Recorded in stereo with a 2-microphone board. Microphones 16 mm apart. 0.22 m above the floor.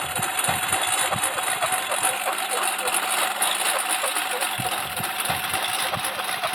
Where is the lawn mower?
40° left (ahead or behind); by 6.5 s centre (ahead or behind).